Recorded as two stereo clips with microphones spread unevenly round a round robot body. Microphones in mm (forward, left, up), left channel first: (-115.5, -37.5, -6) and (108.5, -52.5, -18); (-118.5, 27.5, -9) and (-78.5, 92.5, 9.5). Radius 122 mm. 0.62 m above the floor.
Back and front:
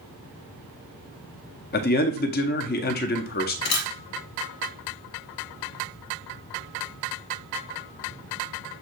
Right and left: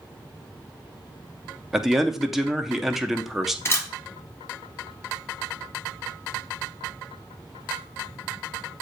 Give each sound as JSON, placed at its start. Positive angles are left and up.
{"t": 1.7, "sound": "a man speaking", "azimuth_deg": 165, "distance_m": 0.7}
{"t": 3.6, "sound": "a camera shutter", "azimuth_deg": 175, "distance_m": 1.0}